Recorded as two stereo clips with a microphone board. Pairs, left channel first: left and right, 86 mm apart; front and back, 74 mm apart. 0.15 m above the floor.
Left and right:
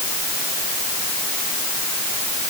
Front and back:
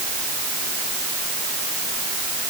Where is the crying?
I don't hear crying.